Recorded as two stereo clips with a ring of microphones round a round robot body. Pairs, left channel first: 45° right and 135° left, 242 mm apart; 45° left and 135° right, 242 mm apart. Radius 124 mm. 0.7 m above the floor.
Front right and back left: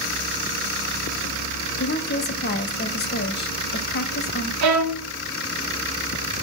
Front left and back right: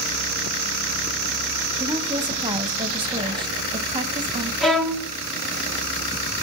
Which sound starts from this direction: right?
A woman speaking, at 1.8 s.